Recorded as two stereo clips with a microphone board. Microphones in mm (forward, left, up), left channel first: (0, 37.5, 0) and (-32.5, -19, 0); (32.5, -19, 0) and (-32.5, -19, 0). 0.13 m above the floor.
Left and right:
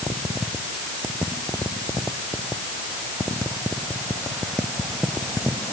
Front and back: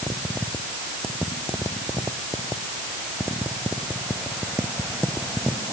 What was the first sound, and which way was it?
Only background noise.